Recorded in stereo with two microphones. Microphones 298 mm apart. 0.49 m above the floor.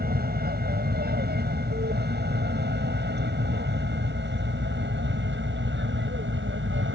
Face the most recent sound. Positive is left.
turn(degrees=-40)  # may be behind; listen again after turning